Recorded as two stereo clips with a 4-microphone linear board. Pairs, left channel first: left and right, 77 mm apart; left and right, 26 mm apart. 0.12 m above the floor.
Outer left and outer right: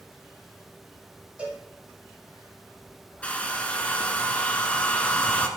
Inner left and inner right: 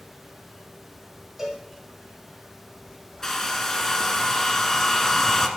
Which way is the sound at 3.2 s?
20° left (ahead or behind).